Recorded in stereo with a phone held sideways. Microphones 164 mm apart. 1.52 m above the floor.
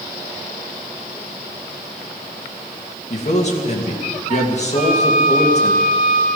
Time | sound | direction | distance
3.1 | a man speaking | 45° left (ahead or behind) | 2.5 m
4.7 | a flute | 30° left (ahead or behind) | 4 m